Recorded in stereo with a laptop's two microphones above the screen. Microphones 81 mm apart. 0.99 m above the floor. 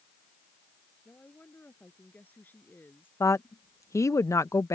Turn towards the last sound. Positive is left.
turn(degrees=35)  # may be behind; listen again after turning